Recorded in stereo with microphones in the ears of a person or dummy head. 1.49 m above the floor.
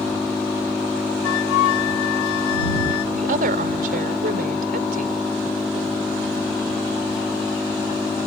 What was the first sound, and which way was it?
An engine running, centre (ahead or behind).